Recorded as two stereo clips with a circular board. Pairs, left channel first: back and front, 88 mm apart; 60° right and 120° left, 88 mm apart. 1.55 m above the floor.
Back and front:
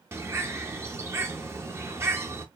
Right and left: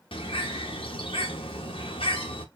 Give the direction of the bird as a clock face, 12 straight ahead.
2 o'clock.